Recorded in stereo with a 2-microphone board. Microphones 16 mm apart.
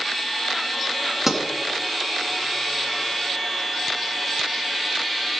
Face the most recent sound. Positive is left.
turn(degrees=-15)  # may be behind; listen again after turning